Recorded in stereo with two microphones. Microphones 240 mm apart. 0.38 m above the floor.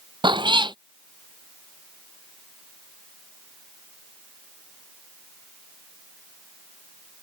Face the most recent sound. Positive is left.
turn(degrees=-20)  # may be behind; listen again after turning